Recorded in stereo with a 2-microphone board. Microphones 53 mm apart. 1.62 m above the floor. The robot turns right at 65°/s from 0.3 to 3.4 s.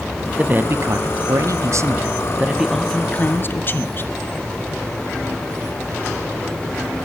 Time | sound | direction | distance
0.3 | a man speaking | 160° right | 0.5 m